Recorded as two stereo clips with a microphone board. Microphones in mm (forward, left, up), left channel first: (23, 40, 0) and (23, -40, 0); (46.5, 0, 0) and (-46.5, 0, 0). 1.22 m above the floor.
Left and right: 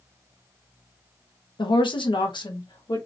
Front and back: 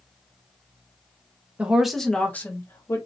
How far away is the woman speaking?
About 0.9 m.